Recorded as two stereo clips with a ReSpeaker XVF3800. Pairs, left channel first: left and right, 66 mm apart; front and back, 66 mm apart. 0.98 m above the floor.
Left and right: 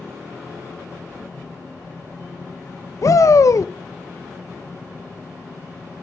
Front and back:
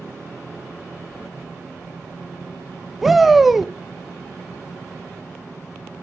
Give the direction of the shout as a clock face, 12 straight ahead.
9 o'clock.